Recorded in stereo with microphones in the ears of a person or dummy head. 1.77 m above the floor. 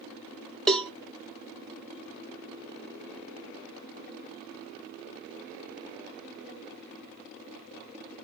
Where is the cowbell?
Centre (ahead or behind), 0.7 m.